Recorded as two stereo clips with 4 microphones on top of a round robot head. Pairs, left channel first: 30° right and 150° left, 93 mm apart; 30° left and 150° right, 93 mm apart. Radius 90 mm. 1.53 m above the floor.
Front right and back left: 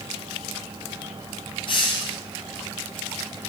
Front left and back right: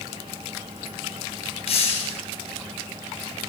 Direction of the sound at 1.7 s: 10° left.